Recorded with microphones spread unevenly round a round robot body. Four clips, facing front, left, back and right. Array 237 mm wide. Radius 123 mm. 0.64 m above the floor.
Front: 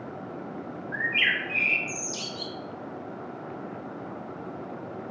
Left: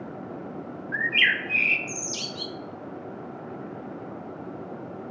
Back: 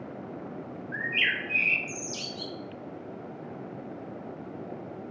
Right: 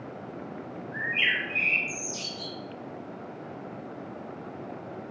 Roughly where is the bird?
Left.